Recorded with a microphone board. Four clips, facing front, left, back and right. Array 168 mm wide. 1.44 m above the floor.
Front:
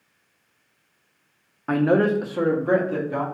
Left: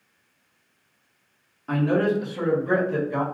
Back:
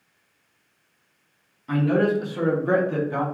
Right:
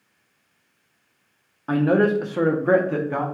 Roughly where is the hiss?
No hiss in this recording.